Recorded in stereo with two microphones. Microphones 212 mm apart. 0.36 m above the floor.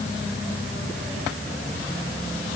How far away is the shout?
No shout in this recording.